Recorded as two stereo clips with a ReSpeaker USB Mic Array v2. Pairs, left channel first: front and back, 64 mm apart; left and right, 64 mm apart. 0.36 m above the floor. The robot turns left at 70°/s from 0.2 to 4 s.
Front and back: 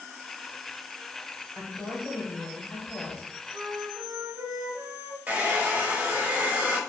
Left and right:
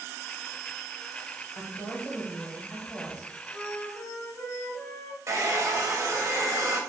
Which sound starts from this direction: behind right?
A hair dryer, at 5.3 s.